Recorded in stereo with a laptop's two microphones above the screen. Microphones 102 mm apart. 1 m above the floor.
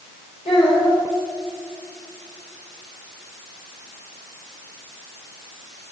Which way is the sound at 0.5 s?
85° left.